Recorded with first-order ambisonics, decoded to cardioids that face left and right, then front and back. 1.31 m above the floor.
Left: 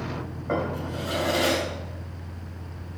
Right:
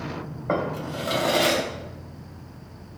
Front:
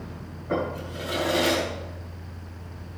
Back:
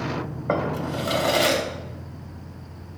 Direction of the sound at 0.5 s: 160° right.